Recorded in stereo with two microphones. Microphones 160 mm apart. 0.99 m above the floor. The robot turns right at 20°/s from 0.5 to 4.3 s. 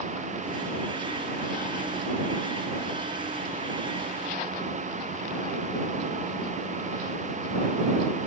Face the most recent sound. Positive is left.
No sound to turn to.